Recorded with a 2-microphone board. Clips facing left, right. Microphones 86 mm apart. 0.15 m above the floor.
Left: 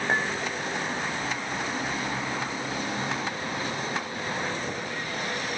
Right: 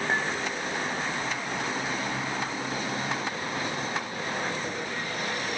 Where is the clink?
15° left (ahead or behind), 9 m.